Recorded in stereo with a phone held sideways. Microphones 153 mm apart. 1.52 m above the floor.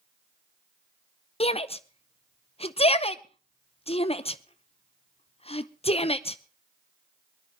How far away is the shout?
About 0.8 m.